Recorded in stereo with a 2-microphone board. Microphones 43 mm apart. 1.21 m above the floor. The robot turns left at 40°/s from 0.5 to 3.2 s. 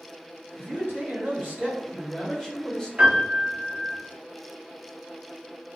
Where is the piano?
25° right (ahead or behind), 1.0 m; by 4.0 s 15° right (ahead or behind), 1.0 m.